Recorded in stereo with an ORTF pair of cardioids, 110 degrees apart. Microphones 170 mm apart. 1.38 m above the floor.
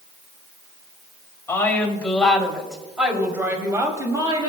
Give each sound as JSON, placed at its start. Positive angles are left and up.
{"t": 1.5, "sound": "a woman speaking", "azimuth_deg": 15, "distance_m": 3.5}